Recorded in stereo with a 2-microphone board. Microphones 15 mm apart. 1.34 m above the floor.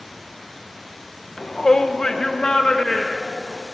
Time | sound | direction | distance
1.4 | a shout | 50° left (ahead or behind) | 0.8 m